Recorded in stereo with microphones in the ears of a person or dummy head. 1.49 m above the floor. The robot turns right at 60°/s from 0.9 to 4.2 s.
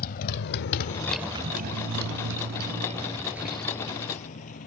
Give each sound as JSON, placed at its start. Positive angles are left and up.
{"t": 0.0, "sound": "a motorcycle", "side_deg": 50}